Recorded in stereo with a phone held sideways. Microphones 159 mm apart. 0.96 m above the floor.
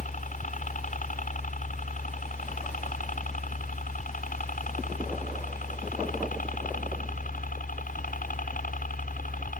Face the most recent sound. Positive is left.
turn(degrees=60)  # may be behind; listen again after turning